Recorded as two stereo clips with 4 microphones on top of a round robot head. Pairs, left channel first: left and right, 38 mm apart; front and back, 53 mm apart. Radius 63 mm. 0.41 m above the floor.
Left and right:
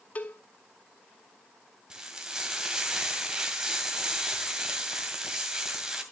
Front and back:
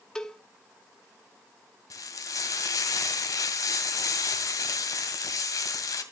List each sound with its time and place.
0.1 s a cowbell: 70° left, 1.7 m
1.9 s frying: 15° right, 2 m